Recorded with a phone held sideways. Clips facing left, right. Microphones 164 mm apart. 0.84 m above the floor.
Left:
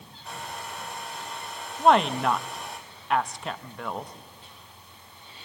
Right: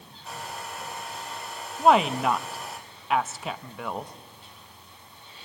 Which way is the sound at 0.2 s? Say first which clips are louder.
Even; centre (ahead or behind).